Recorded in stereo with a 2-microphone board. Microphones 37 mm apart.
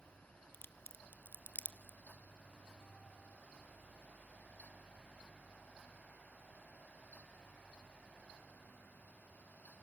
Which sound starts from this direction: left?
A crack, at 0.5 s.